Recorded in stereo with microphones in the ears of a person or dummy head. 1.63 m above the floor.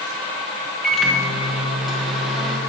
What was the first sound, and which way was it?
A microwave, 5° right (ahead or behind).